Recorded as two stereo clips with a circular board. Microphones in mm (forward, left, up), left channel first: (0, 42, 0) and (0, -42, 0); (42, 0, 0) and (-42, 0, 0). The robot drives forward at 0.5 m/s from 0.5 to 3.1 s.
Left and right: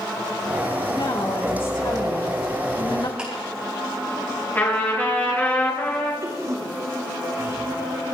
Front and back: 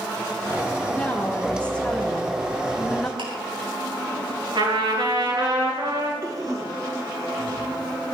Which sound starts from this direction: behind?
Ticking, at 3.2 s.